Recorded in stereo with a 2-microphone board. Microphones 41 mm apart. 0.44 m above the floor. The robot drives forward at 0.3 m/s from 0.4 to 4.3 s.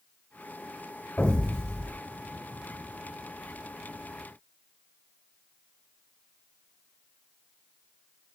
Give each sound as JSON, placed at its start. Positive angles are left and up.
{"t": 1.2, "sound": "an explosion", "side_deg": 25, "distance_m": 1.2}